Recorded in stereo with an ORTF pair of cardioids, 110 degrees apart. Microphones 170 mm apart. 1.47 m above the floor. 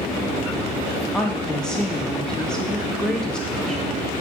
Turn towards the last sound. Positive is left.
turn(degrees=5)